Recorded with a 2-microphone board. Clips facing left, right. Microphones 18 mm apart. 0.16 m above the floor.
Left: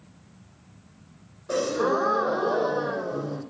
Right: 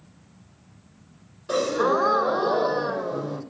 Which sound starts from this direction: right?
A gasp, at 1.5 s.